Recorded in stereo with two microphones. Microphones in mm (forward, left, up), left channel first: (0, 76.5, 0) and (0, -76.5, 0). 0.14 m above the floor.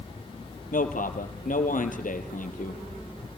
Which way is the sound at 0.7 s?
60° left (ahead or behind).